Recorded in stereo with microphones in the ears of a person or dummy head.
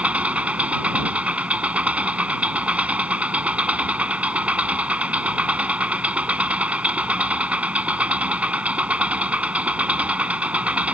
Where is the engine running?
5° right (ahead or behind).